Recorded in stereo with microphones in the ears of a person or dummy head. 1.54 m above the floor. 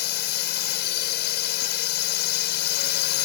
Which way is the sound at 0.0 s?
65° left (ahead or behind).